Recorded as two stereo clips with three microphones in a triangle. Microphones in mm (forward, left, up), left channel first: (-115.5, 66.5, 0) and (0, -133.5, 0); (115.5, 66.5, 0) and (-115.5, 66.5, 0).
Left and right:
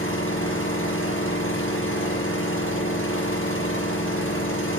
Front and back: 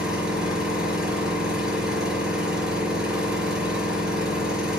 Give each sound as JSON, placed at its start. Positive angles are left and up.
{"t": 0.0, "sound": "an engine running", "azimuth_deg": 90, "distance_m": 5.0}